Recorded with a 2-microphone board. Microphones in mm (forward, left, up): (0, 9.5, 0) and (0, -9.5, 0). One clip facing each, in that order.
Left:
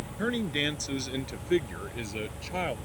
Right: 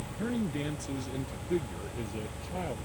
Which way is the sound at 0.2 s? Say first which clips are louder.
Left 4 dB; 75° left (ahead or behind).